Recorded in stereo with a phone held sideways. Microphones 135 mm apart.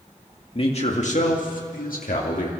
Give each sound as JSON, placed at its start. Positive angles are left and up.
{"t": 0.6, "sound": "a man speaking", "side_deg": 45, "distance_m": 2.5}